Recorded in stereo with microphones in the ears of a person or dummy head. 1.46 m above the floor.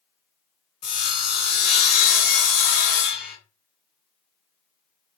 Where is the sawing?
40° left (ahead or behind), 1.9 m.